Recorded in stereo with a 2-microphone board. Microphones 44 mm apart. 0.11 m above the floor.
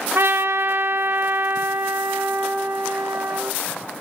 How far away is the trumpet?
About 2.5 m.